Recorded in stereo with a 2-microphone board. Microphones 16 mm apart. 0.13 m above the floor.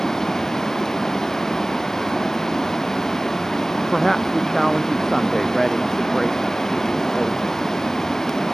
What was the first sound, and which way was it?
Running water, 35° left (ahead or behind).